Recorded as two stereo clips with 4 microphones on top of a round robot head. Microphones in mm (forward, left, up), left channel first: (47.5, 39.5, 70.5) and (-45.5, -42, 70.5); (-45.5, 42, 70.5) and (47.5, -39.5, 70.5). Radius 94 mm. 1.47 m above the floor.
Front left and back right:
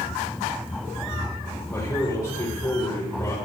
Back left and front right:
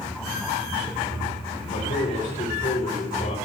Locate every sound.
1.7 s a man speaking: 105° left, 7.5 m